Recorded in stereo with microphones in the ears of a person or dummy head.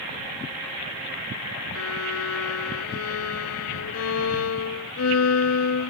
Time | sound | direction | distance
1.8 | a violin | 85° left | ?